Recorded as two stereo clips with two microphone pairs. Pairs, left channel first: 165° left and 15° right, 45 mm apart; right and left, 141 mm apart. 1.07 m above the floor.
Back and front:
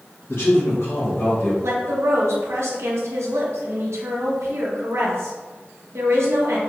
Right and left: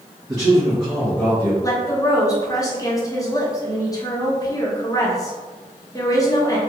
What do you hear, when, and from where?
0.3 s a man speaking: 155° left, 1.2 m; by 1.5 s 150° right, 1.5 m
1.6 s a woman speaking: 25° right, 0.9 m